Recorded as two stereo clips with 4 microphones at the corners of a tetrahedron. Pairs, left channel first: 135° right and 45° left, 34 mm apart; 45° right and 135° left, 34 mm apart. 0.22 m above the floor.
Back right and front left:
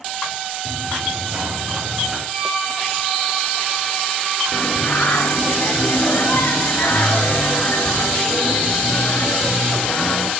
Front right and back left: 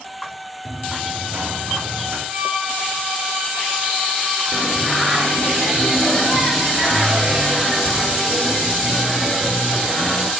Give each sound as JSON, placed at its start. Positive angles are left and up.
{"t": 0.7, "sound": "running footsteps", "azimuth_deg": 100, "distance_m": 3.0}
{"t": 2.3, "sound": "a violin", "azimuth_deg": 135, "distance_m": 3.5}
{"t": 4.5, "sound": "singing", "azimuth_deg": -140, "distance_m": 1.2}